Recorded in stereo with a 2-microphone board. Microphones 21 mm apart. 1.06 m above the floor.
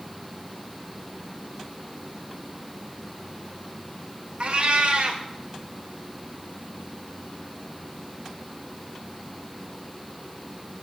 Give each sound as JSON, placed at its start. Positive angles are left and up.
{"t": 4.4, "sound": "a cat meowing", "side_deg": -65, "distance_m": 0.6}